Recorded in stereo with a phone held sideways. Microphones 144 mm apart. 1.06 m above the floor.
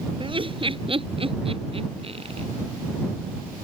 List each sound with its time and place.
0.2 s laughter: 35° right (ahead or behind); by 2.5 s 40° right (ahead or behind)